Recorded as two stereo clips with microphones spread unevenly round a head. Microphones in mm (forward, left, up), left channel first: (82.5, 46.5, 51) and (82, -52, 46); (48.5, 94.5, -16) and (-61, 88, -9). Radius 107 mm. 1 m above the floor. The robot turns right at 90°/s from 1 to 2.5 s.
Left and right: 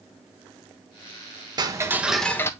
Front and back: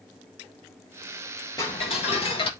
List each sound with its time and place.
1.6 s ticking: 55° right, 1.2 m; by 2.5 s 25° left, 1.2 m